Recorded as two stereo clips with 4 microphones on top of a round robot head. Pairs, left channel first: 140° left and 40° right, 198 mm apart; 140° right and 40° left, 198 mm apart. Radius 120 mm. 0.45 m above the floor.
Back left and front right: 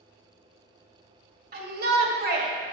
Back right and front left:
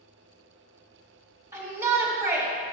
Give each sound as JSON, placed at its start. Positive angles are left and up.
{"t": 1.5, "sound": "a shout", "azimuth_deg": -30, "distance_m": 2.0}